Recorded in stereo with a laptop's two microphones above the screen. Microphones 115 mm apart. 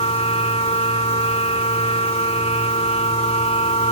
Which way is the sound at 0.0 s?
65° left (ahead or behind).